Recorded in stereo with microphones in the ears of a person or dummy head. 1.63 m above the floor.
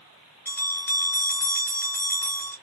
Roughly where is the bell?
Centre.